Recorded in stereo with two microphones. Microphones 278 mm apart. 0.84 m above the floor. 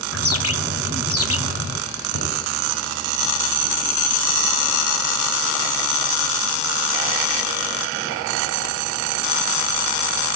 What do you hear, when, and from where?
0.1 s a bird: 55° left (ahead or behind), 1.9 m
2.1 s knocking: 75° left (ahead or behind), 9.5 m